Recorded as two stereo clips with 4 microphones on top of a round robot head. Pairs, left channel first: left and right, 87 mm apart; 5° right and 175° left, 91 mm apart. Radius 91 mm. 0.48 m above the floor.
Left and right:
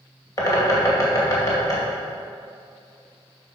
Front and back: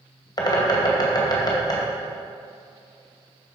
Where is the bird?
35° left, 2 m.